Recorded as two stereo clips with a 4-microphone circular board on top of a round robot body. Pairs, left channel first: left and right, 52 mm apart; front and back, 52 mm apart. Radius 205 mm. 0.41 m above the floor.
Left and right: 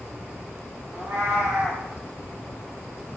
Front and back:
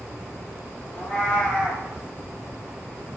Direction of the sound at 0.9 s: 70° right.